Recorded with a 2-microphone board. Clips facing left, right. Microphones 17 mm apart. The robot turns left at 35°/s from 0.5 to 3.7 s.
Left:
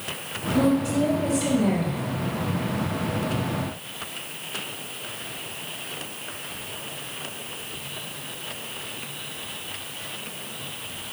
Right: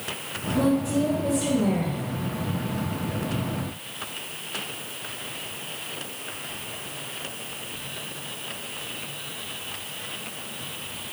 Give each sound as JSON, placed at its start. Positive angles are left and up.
{"t": 0.5, "sound": "a woman speaking", "azimuth_deg": 85, "distance_m": 2.5}